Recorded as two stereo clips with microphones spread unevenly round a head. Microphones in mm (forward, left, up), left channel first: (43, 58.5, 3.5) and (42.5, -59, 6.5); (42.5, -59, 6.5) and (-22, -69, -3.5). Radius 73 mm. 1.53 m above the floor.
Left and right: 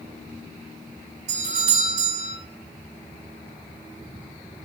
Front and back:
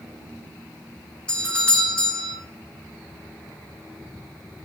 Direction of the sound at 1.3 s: 65° right.